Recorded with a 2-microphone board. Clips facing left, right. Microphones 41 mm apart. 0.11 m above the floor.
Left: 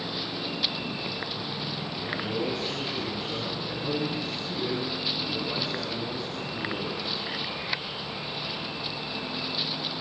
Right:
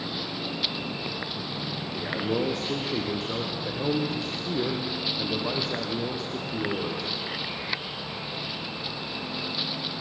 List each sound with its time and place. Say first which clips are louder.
1.9 s a man speaking: right 4 dB; 55° right (ahead or behind), 5.5 m